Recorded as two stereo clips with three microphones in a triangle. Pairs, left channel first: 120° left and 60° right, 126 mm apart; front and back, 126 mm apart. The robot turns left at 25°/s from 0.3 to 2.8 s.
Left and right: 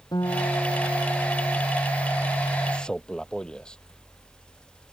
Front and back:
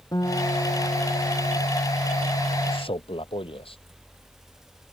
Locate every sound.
0.1 s a guitar: 60° left; by 1.6 s 30° left
2.7 s a man speaking: 40° left; by 3.8 s 35° left